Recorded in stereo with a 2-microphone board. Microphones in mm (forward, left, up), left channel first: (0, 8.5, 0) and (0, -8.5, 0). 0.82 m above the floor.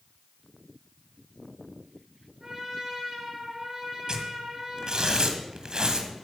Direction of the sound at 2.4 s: 35° right (ahead or behind).